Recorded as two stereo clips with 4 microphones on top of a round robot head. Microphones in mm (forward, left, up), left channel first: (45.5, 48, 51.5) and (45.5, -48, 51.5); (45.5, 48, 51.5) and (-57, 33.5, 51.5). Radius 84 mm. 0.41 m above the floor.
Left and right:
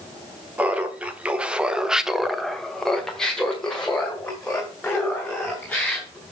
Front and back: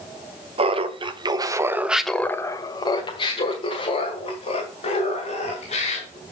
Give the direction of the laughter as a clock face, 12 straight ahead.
6 o'clock.